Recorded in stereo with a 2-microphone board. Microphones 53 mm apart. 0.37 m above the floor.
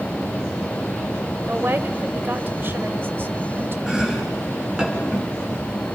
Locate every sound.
1.4 s a woman speaking: 40° right (ahead or behind), 1.3 m
3.9 s chopping: 15° right (ahead or behind), 4 m